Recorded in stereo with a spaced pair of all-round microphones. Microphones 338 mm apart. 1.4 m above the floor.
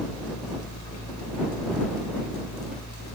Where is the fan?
60° left (ahead or behind).